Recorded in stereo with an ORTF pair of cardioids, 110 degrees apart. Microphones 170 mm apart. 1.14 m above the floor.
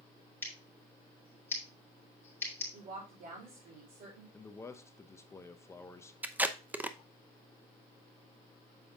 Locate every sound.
0.4 s scissors: 15° left, 3.5 m
2.7 s a woman speaking: 60° right, 3.5 m
4.3 s a man speaking: 15° left, 0.8 m
6.2 s tape being pulled: 10° right, 0.7 m